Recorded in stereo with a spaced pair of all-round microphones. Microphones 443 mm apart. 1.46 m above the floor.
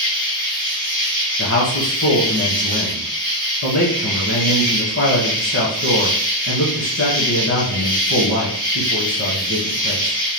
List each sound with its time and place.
0.0 s an insect: 75° left (ahead or behind), 2 m
1.4 s a man speaking: 35° left (ahead or behind), 1.0 m